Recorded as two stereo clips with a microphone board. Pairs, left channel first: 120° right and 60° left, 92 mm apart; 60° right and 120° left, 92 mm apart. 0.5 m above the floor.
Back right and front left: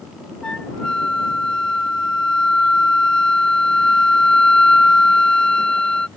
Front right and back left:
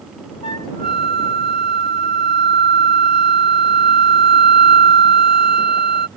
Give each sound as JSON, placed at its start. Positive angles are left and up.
{"t": 0.4, "sound": "a flute", "azimuth_deg": -40}